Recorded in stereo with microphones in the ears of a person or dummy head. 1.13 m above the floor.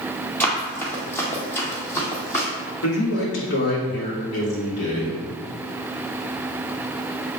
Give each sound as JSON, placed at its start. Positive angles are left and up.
{"t": 0.4, "sound": "running footsteps", "side_deg": 10, "distance_m": 1.6}
{"t": 2.8, "sound": "a man speaking", "side_deg": 80, "distance_m": 2.5}